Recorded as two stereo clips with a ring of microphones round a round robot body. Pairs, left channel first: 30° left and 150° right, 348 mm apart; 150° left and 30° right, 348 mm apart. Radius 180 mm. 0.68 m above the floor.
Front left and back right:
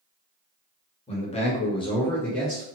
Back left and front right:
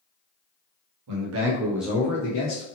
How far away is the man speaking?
About 1.1 m.